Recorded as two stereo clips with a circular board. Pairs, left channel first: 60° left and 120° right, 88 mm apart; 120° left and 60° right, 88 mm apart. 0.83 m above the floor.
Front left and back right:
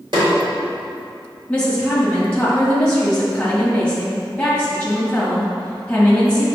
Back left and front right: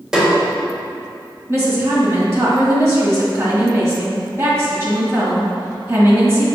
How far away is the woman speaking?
About 1.5 m.